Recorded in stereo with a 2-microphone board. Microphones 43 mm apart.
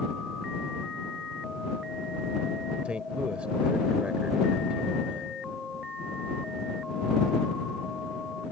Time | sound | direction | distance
2.9 | a man speaking | 25° right (ahead or behind) | ?